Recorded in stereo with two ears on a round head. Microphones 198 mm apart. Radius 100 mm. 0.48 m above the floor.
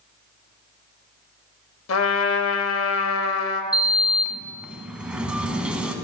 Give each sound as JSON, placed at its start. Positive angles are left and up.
{"t": 1.9, "sound": "a trumpet", "side_deg": 60, "distance_m": 0.6}
{"t": 3.7, "sound": "a sliding door", "side_deg": -5, "distance_m": 0.7}